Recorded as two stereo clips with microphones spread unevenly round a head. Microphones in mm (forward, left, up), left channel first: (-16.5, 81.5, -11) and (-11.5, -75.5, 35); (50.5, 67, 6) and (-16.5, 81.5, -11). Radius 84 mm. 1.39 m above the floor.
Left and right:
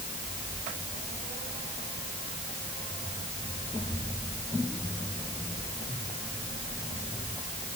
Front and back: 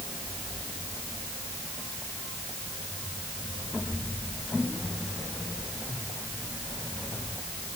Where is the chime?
No chime in this recording.